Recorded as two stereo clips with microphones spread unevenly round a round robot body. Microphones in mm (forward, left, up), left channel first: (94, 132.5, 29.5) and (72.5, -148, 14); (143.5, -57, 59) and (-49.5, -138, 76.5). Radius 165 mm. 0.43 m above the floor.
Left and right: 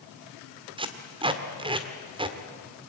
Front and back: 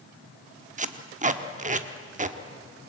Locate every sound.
0.8 s tape being pulled: 145° right, 1.5 m